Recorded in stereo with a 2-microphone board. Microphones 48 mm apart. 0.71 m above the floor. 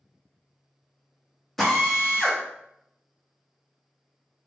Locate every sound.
1.6 s a drill: 5° left (ahead or behind), 1.1 m